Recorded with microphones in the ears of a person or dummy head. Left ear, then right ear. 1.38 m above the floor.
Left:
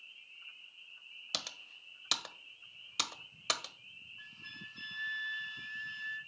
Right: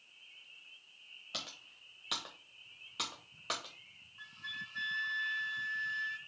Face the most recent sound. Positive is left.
turn(degrees=-10)  # may be behind; listen again after turning